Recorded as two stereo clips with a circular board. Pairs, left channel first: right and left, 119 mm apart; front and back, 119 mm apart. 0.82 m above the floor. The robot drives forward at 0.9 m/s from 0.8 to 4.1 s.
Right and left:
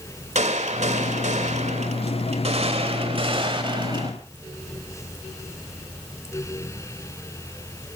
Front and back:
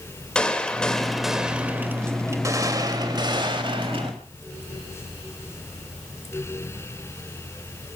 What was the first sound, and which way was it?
A gunshot, 85° left.